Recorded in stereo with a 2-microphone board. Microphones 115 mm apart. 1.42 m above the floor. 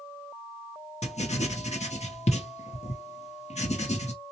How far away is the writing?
About 0.8 m.